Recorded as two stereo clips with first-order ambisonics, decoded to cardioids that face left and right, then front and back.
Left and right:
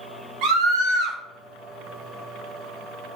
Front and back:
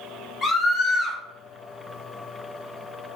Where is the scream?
75° right, 4.5 m.